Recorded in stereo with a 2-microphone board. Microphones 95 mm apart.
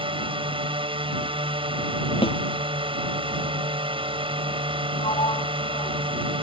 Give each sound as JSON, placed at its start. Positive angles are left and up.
{"t": 0.0, "sound": "a drone", "side_deg": -65}
{"t": 2.2, "sound": "a snare drum", "side_deg": 70}
{"t": 5.0, "sound": "a sliding door", "side_deg": 75}